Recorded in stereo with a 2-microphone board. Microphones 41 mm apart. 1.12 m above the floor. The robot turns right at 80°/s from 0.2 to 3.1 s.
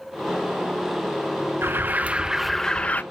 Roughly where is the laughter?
No laughter in this recording.